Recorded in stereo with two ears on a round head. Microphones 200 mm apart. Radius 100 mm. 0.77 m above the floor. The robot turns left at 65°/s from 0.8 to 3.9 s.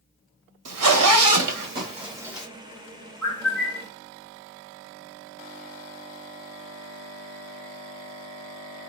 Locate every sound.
0.7 s a zipper: 70° right (ahead or behind), 1.5 m; by 2.5 s centre (ahead or behind), 1.5 m
3.2 s a bird: 160° left, 2.5 m; by 3.9 s 115° left, 2.5 m